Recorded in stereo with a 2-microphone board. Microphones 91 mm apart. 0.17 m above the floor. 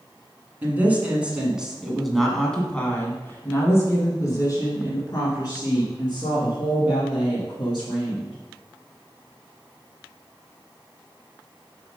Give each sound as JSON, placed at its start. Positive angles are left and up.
{"t": 0.6, "sound": "a woman speaking", "side_deg": -20, "distance_m": 2.0}